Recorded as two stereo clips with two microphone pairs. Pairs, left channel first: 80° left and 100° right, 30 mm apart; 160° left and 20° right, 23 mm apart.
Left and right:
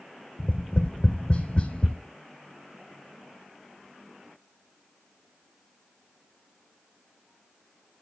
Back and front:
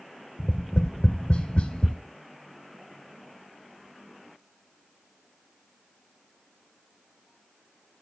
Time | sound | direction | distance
0.4 | tapping | 125° left | 1.4 m